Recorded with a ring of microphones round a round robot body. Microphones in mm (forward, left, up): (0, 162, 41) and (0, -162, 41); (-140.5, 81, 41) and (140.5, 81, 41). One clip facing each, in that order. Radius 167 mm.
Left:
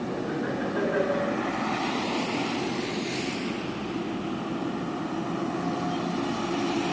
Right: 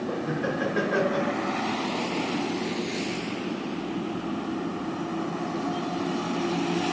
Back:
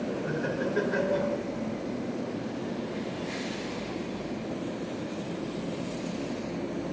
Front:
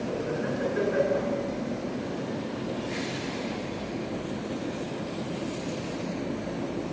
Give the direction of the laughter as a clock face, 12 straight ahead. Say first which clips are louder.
Right 1 dB, front 1 dB; 5 o'clock.